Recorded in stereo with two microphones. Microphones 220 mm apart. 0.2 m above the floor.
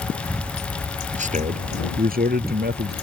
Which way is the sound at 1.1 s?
35° right (ahead or behind).